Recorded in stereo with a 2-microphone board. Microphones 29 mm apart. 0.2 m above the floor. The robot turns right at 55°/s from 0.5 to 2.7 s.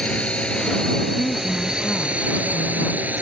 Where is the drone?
40° left (ahead or behind); by 3.2 s 65° right (ahead or behind).